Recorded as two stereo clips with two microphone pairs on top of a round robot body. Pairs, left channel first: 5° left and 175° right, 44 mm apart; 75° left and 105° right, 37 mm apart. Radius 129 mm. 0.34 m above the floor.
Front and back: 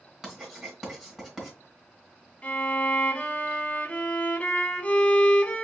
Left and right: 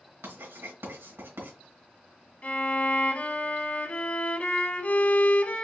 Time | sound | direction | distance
0.2 | writing | 95° right | 2.5 m
2.4 | a violin | 45° left | 1.5 m